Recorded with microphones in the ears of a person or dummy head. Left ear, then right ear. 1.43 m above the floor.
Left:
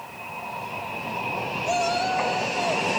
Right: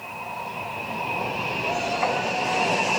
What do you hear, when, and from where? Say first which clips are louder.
1.6 s a shout: left 2 dB; 55° left (ahead or behind), 5.5 m; by 2.9 s 65° left (ahead or behind), 6.5 m